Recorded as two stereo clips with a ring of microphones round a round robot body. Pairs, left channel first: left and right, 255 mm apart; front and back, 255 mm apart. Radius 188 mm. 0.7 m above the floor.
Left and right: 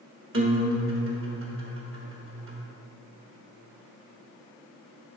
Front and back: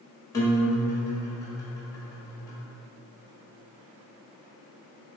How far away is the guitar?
About 1.4 m.